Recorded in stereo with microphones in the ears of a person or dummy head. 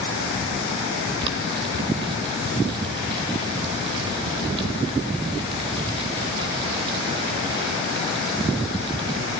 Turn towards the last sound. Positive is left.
turn(degrees=-30)  # may be behind; listen again after turning